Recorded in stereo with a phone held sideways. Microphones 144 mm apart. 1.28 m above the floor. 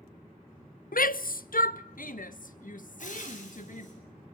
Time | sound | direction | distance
0.9 | a shout | 75° left (ahead or behind) | 0.7 m
3.0 | frying | 60° left (ahead or behind) | 9 m